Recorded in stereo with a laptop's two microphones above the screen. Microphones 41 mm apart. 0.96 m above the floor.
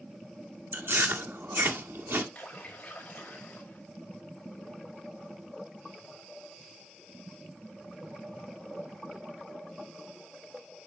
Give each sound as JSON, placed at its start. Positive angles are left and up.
{"t": 0.7, "sound": "chewing", "side_deg": -65, "distance_m": 1.8}
{"t": 2.4, "sound": "a splash", "side_deg": 35, "distance_m": 4.5}